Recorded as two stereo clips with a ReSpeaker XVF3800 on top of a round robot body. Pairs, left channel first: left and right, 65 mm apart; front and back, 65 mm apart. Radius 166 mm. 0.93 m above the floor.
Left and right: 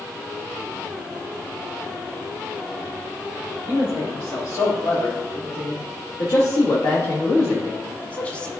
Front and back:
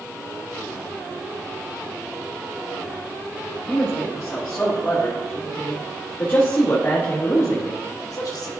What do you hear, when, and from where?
3.7 s a man speaking: 80° left, 3 m; by 8.5 s 15° left, 1.0 m